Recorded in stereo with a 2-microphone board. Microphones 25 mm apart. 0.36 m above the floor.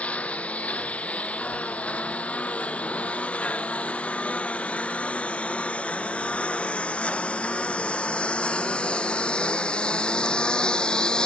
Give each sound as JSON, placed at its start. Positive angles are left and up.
{"t": 0.0, "sound": "a lawn mower", "side_deg": 75}